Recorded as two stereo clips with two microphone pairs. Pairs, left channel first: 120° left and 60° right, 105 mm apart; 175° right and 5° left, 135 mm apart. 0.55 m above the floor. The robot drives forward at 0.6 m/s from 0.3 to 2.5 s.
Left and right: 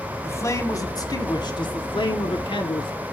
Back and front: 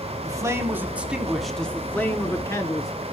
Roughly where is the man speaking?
Ahead left.